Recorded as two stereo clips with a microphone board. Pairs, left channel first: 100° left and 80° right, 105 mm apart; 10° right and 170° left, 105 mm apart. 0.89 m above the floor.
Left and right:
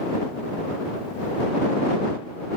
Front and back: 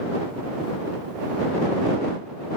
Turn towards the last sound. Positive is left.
No sound to turn to.